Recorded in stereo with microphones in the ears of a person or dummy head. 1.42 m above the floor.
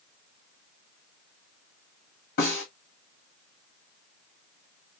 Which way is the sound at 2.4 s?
55° left (ahead or behind).